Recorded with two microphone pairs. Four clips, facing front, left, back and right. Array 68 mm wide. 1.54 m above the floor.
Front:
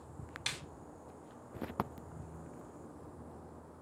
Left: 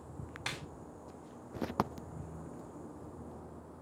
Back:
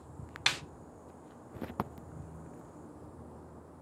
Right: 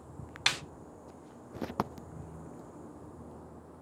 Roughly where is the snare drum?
Behind right.